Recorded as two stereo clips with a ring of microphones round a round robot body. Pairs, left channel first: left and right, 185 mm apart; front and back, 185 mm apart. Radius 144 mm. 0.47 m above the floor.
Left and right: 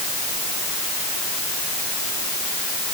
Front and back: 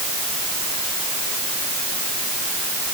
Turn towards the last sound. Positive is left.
No sound to turn to.